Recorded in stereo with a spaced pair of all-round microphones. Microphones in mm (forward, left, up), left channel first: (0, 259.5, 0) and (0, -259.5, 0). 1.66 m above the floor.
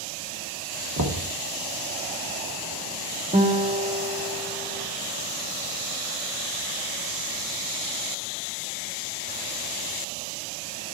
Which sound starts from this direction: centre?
A guitar, at 3.3 s.